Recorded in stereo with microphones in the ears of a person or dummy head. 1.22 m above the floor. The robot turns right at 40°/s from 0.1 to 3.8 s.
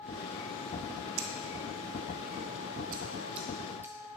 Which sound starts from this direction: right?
Scissors, at 1.2 s.